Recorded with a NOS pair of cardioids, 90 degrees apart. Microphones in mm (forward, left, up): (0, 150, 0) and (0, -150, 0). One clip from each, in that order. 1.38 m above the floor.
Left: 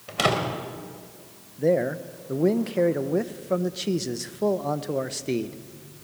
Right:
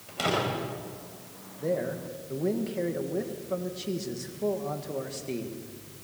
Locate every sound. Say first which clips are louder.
0.1 s a door slam: left 4 dB; 60° left, 4.5 m
1.6 s a man speaking: left 7 dB; 50° left, 1.2 m